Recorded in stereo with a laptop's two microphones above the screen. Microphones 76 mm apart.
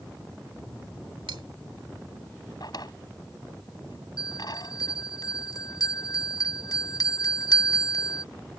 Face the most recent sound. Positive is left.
turn(degrees=55)  # may be behind; listen again after turning